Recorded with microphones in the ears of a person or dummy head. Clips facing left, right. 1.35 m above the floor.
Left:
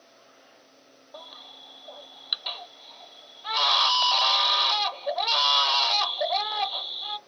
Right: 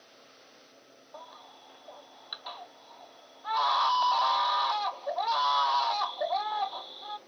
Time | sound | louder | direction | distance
1.1 | a baby crying | left 3 dB | 40° left (ahead or behind) | 0.5 m